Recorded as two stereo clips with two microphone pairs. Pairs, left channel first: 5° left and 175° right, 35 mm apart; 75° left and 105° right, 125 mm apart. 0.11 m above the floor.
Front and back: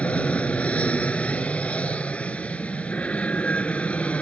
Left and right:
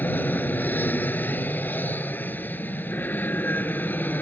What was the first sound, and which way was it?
An aircraft, 10° left.